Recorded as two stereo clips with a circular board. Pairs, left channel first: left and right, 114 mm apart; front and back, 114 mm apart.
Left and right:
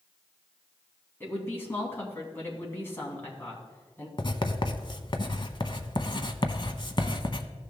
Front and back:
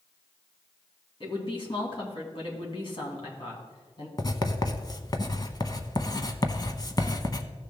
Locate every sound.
1.2 s a woman speaking: 25° left, 2.5 m
4.2 s writing: 50° left, 0.7 m